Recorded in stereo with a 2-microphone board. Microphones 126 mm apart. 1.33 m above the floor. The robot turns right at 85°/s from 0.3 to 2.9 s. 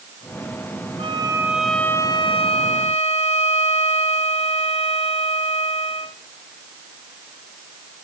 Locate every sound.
1.0 s a violin: 55° right, 2.5 m; by 6.2 s 105° left, 2.5 m